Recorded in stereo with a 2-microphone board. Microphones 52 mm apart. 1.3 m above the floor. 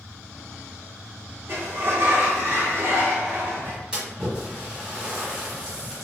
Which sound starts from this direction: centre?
A splash, at 3.9 s.